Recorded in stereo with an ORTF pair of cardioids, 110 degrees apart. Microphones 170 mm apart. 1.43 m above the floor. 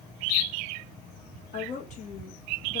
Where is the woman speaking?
45° left, 1.1 m.